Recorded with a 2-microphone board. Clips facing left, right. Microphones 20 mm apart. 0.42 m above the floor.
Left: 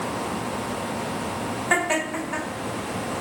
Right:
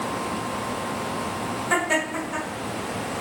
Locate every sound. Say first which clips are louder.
1.7 s laughter: even; 25° left (ahead or behind), 1.8 m